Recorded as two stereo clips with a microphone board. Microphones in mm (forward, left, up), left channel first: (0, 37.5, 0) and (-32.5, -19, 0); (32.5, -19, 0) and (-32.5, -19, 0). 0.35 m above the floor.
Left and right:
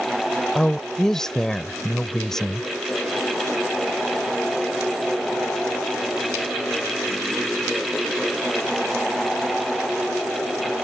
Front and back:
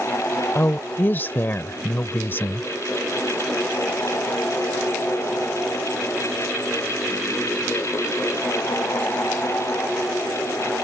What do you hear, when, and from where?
0.6 s a woman speaking: 15° right